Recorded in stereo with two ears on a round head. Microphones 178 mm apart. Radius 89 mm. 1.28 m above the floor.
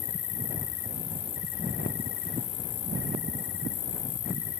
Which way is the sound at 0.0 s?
40° left (ahead or behind).